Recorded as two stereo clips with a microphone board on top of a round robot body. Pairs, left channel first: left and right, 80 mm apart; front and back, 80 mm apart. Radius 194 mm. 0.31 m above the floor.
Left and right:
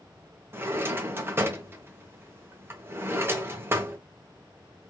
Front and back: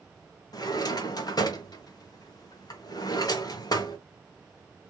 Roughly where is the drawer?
Ahead right.